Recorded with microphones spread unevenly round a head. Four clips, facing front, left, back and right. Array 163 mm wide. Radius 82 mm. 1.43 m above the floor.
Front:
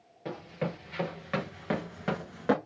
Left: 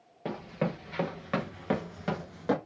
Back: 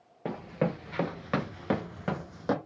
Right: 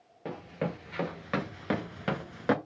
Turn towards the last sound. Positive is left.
turn(degrees=-50)